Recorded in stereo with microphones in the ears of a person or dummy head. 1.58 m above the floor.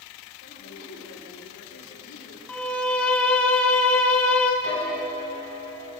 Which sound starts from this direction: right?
A piano, at 4.6 s.